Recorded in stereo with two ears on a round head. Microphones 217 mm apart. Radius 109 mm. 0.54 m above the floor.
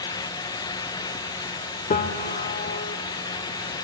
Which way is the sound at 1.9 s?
30° left (ahead or behind).